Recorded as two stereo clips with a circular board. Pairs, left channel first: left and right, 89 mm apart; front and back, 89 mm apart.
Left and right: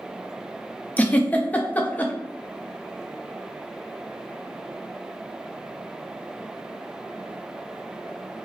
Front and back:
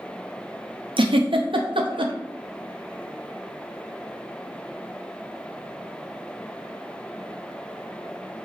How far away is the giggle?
About 0.6 m.